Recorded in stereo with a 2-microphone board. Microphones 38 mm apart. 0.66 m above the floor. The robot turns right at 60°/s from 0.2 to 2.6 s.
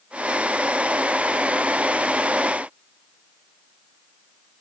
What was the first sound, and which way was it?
Only background noise.